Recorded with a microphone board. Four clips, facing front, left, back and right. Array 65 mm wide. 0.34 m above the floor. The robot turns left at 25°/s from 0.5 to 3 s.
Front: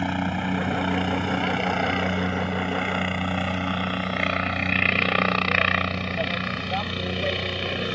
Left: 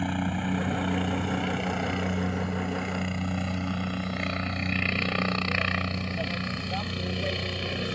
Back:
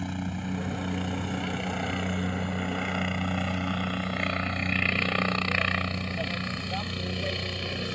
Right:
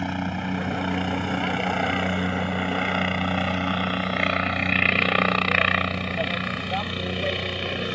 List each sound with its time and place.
0.0 s a helicopter: 10° right; by 8.0 s 30° right